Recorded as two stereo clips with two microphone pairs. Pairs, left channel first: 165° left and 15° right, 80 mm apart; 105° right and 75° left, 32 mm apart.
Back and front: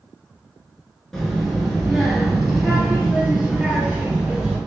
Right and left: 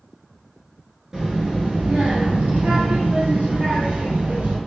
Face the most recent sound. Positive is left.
turn(degrees=70)